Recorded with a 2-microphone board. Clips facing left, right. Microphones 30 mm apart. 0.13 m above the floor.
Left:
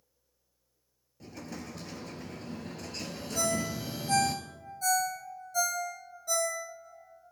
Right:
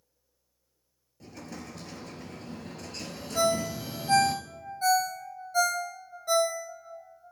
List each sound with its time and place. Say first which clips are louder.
1.2 s an explosion: even; 5° left (ahead or behind), 1.4 m
3.4 s a ringtone: right 5 dB; 35° right (ahead or behind), 2 m